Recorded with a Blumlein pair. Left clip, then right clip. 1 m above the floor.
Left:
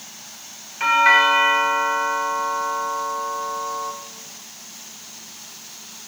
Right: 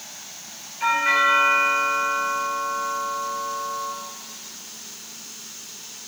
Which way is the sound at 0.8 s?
60° left.